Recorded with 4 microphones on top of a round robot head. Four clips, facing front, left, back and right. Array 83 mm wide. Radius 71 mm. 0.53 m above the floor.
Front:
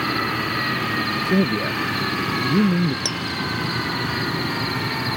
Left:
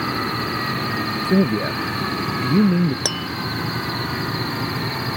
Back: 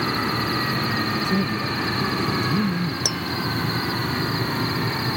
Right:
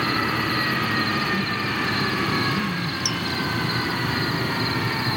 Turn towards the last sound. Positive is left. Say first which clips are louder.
# left 1 dB, front 1 dB
turn(degrees=95)